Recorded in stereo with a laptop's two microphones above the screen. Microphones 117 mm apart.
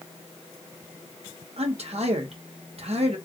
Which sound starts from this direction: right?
A man speaking, at 1.6 s.